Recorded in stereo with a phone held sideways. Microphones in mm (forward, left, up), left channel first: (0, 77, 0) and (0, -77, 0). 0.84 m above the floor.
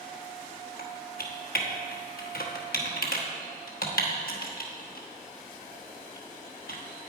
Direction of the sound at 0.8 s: 75° left (ahead or behind).